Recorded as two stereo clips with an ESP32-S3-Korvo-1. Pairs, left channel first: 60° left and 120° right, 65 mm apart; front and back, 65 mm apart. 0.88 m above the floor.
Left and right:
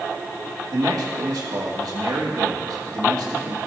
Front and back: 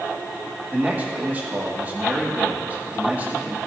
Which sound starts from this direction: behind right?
A man speaking, at 0.7 s.